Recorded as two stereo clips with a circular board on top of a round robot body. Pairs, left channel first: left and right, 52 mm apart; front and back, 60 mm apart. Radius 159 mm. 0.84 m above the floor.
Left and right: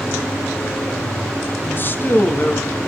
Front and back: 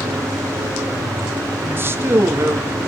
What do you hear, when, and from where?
1.6 s a man speaking: 130° left, 1.8 m; by 2.8 s 145° left, 2.5 m